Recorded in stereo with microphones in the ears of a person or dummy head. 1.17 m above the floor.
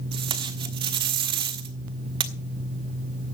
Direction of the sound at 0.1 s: 35° right (ahead or behind).